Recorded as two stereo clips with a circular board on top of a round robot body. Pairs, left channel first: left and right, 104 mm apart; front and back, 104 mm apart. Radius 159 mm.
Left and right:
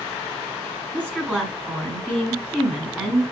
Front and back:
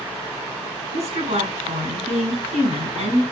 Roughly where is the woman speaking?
Behind.